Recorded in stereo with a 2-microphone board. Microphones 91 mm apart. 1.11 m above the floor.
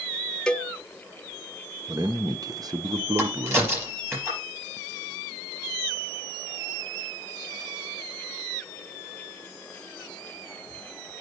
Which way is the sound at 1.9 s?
45° right (ahead or behind).